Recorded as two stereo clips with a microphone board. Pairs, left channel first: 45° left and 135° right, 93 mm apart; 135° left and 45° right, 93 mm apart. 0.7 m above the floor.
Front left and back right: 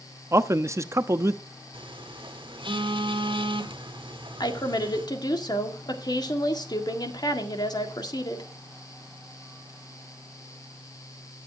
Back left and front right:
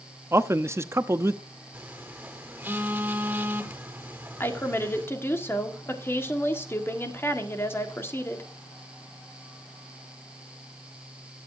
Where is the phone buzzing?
115° right, 1.7 m.